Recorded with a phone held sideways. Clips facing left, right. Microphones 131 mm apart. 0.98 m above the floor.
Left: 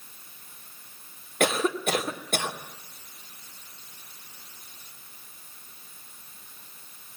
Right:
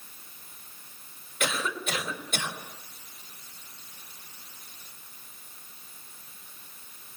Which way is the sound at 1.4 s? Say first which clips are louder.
Left 7 dB; 55° left (ahead or behind).